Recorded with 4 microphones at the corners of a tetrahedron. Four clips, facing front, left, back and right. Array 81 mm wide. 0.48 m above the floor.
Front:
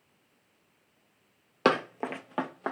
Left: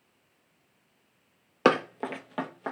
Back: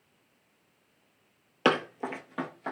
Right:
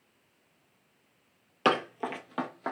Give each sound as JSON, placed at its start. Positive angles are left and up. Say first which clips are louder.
{"t": 1.6, "sound": "running footsteps", "louder": "left 3 dB, even", "azimuth_deg": 60, "distance_m": 0.5}